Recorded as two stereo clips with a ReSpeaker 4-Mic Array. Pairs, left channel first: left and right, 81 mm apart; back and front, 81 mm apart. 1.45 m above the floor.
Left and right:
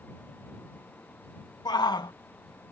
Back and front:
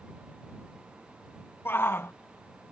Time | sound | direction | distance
1.6 | a shout | 120° left | ?